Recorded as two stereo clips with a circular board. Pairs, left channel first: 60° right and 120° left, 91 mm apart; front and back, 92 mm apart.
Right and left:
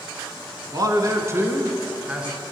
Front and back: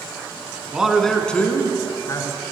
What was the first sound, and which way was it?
A man speaking, 100° left.